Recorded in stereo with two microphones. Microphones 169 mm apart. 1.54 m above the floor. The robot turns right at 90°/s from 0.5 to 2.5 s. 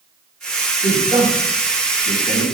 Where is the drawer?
I don't hear a drawer.